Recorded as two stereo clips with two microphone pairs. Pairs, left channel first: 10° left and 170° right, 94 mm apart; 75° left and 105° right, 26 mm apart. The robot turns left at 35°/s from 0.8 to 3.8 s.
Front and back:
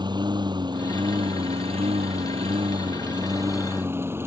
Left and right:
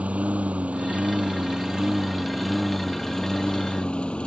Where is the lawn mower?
130° right; by 4.3 s 125° left.